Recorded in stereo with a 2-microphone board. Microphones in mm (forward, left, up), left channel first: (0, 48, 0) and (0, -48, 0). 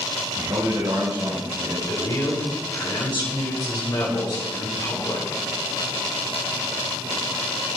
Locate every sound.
0.3 s a man speaking: 45° right (ahead or behind), 7 m; by 1.8 s 30° right (ahead or behind), 7 m
1.9 s a man speaking: 40° left (ahead or behind), 6 m